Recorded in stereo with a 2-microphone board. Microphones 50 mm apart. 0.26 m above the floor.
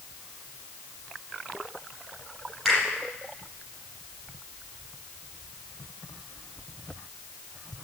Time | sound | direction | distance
2.6 | a finger snap | centre (ahead or behind) | 5.5 m